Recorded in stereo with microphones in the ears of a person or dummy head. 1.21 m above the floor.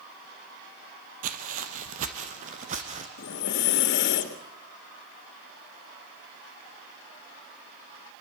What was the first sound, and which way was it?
Footsteps, 55° right (ahead or behind).